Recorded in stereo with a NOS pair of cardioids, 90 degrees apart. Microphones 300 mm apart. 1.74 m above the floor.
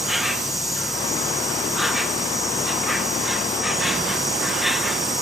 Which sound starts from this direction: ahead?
An insect, at 0.0 s.